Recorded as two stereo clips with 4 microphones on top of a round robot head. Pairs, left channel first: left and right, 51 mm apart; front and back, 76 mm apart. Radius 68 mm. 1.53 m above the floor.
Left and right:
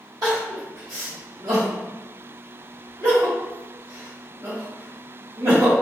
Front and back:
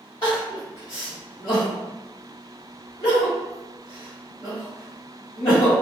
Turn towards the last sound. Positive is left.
turn(degrees=-60)